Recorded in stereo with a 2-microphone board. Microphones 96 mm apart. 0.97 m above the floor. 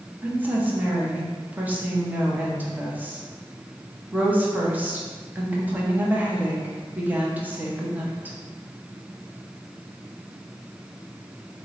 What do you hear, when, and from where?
0.2 s a woman speaking: 15° right (ahead or behind), 0.8 m